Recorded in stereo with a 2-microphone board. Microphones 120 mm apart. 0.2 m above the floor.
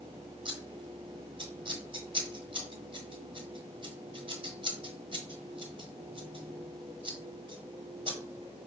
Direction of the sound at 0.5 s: 45° right (ahead or behind).